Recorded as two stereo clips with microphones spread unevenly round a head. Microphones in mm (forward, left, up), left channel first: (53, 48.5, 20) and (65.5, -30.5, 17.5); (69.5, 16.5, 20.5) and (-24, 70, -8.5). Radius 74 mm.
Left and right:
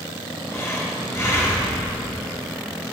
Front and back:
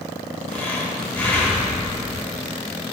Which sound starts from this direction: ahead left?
Breathing, at 0.5 s.